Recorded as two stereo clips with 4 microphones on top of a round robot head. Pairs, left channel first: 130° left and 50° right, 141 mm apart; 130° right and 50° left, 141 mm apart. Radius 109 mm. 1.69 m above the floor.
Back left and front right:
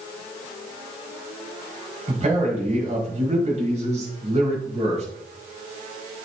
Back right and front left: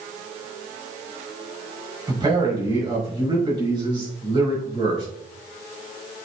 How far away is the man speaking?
About 6 m.